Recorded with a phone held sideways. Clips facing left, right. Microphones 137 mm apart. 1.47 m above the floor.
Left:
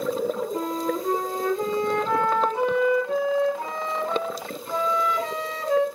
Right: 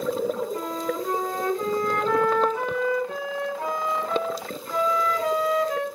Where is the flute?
25° left (ahead or behind), 2.5 m.